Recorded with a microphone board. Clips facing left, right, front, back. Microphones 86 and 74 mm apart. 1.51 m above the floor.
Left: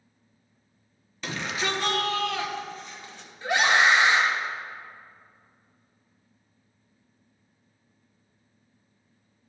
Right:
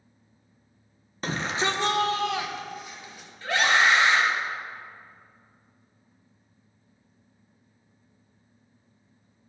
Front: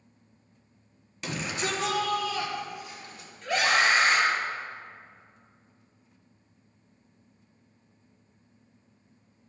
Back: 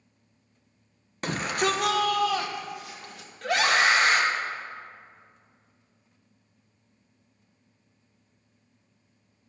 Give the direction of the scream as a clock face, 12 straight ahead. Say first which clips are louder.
Left 1 dB, back 2 dB; 7 o'clock.